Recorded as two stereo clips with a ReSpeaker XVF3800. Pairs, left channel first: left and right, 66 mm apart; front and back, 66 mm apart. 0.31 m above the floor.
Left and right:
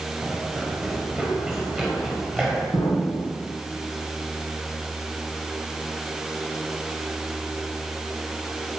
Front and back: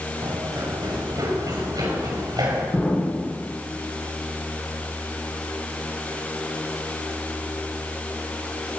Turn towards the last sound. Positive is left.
turn(degrees=80)